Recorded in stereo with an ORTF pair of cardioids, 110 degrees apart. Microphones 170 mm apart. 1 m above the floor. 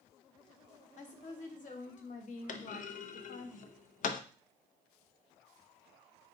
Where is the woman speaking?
50° left, 1.3 m.